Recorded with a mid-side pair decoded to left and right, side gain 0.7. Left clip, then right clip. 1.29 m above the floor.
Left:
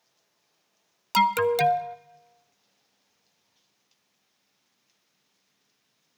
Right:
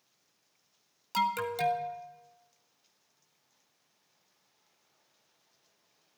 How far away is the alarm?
About 0.6 m.